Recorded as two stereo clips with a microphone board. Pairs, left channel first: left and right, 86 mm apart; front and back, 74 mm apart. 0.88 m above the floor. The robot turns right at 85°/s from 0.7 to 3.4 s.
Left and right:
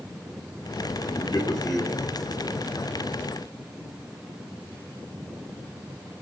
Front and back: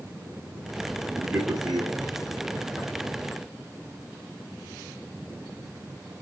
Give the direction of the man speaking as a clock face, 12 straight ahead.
8 o'clock.